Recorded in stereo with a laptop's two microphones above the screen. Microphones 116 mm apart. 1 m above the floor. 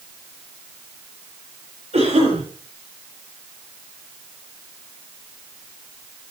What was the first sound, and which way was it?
A cough, 75° right (ahead or behind).